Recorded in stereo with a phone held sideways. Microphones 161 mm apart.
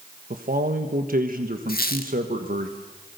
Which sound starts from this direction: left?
A squeak, at 1.7 s.